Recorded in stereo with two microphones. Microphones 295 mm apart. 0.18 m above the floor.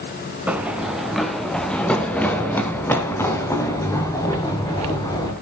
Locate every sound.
0.5 s running footsteps: 5° right (ahead or behind), 2.5 m; by 5.3 s 10° left (ahead or behind), 5.5 m